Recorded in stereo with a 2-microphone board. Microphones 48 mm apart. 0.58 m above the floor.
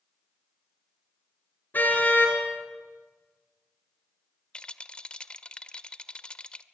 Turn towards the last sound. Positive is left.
turn(degrees=25)  # may be behind; listen again after turning